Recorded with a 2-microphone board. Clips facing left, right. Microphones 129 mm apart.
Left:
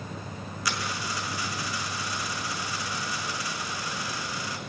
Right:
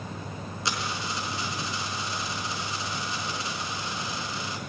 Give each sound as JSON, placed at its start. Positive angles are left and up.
{"t": 0.7, "sound": "a dropped coin", "side_deg": -25, "distance_m": 4.5}